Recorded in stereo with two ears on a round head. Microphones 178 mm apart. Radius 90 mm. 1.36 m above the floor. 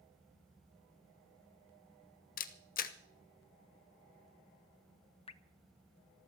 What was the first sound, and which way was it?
A camera shutter, 45° left (ahead or behind).